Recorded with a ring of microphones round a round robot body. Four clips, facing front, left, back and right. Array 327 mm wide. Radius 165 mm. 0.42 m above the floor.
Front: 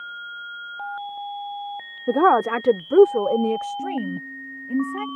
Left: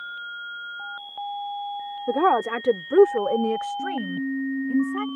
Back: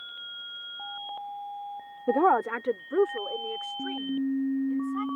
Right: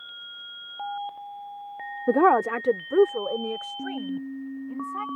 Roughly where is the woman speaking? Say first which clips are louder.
Right 1 dB, front 6 dB; ahead right.